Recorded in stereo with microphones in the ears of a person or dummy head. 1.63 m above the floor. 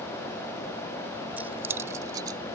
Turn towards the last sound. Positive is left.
turn(degrees=-25)  # may be behind; listen again after turning